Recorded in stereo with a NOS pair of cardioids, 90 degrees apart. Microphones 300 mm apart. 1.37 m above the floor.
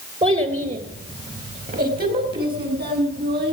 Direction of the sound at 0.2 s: 20° right.